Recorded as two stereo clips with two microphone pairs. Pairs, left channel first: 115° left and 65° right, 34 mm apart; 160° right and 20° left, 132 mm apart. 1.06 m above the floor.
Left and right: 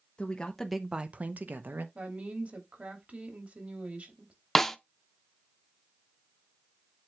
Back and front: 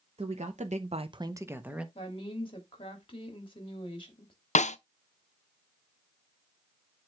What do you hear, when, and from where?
0.2 s a woman speaking: 50° left, 1.0 m; by 1.9 s 60° right, 1.3 m
1.9 s a woman speaking: 110° right, 2.5 m
4.5 s a snare drum: 165° right, 0.6 m